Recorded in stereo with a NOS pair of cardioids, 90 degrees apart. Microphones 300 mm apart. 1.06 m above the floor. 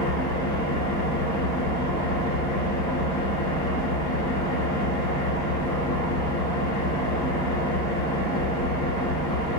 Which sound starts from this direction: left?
An engine running, at 0.0 s.